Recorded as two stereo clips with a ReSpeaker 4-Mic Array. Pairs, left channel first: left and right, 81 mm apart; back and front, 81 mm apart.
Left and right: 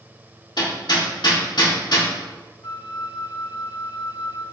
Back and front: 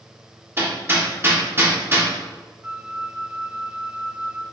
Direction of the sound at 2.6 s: 65° left.